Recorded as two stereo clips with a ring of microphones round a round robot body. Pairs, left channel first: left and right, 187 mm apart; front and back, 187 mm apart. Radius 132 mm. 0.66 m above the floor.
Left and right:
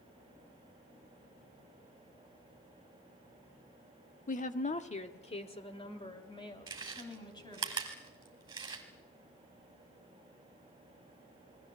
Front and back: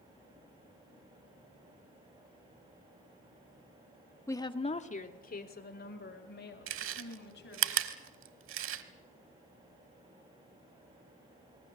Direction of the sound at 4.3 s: 70° left.